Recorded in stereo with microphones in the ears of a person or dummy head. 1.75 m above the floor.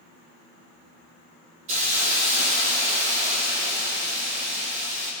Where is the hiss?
35° right (ahead or behind), 1.2 m.